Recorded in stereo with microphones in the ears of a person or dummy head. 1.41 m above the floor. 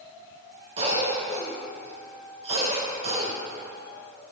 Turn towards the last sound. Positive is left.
turn(degrees=-30)  # may be behind; listen again after turning